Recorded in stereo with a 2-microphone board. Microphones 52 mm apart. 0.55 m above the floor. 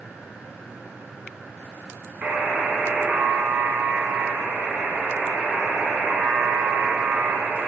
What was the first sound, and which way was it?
A buzzer, 40° right (ahead or behind).